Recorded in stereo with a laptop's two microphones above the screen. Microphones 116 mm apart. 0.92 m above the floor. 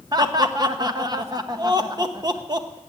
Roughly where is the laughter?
Right.